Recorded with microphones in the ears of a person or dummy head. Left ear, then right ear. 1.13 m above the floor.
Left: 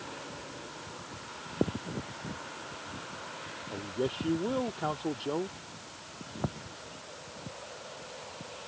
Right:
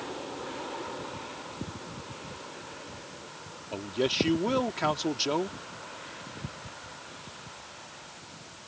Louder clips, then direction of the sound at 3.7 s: Right 6 dB; 75° right (ahead or behind).